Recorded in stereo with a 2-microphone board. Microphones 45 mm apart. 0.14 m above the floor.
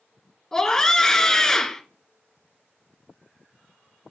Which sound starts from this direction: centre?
A scream, at 0.5 s.